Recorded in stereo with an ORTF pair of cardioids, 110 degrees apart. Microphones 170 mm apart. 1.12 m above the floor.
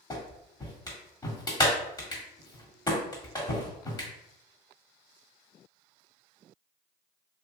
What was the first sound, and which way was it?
A clap, 20° left.